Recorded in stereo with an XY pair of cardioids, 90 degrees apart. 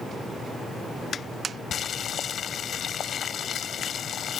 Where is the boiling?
65° left.